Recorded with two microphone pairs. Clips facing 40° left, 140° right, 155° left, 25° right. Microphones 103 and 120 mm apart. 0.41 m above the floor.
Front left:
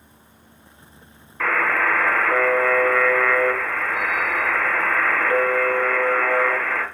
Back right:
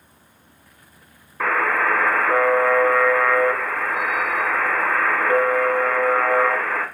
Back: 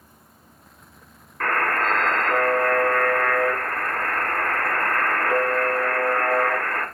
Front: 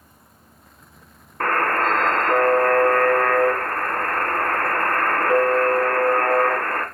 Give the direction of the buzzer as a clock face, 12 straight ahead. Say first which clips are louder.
Back right 1 dB, front 3 dB; 2 o'clock.